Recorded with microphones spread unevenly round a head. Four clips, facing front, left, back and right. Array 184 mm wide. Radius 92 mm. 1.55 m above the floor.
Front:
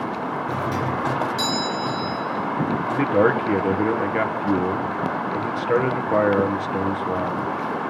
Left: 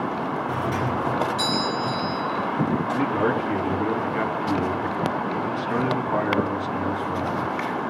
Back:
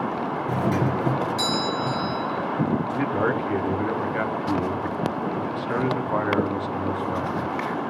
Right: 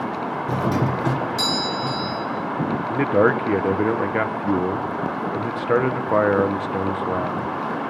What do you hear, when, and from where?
0.5 s a doorbell: 120° right, 1.2 m
2.9 s a man speaking: 55° right, 1.2 m